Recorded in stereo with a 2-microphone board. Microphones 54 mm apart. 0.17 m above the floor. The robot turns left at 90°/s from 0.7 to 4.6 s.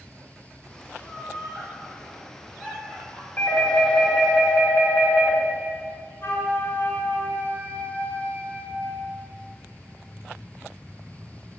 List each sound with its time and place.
0.9 s laughter: 15° right (ahead or behind), 4 m; by 3.3 s 40° left (ahead or behind), 4 m
3.4 s a doorbell: 85° left, 1.8 m; by 5.4 s 25° right, 1.8 m
6.2 s a flute: 45° left (ahead or behind), 2.5 m